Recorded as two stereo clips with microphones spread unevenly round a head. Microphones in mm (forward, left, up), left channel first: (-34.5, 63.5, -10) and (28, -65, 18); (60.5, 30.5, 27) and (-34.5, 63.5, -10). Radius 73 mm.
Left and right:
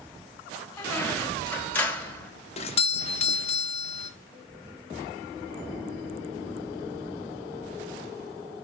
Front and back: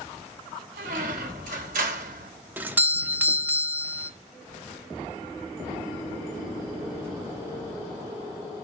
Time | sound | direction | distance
0.8 | a squeak | 160° right | 1.3 m
2.6 | a doorbell | 115° left | 0.7 m